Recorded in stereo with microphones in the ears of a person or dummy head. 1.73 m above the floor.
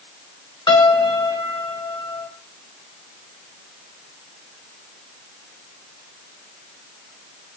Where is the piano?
20° left (ahead or behind), 5.5 m.